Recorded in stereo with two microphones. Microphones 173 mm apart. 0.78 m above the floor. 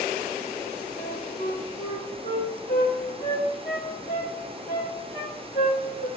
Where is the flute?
65° left (ahead or behind), 2.5 m.